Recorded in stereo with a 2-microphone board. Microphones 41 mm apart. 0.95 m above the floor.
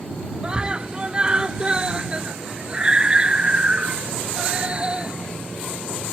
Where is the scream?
20° right (ahead or behind).